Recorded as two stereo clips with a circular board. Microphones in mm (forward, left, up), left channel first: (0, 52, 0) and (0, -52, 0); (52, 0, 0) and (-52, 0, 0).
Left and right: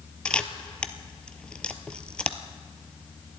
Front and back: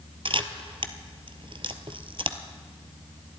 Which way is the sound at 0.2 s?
170° left.